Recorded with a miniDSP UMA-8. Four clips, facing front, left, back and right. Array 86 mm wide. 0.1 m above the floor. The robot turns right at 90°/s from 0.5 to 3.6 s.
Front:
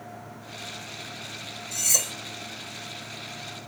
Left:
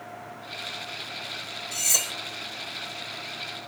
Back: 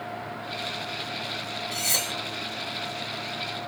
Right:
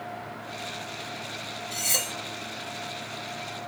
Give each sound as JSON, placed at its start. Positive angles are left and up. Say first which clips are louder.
{"t": 1.7, "sound": "cutlery clinking", "louder": "right 1 dB, back 1 dB", "azimuth_deg": -170, "distance_m": 0.8}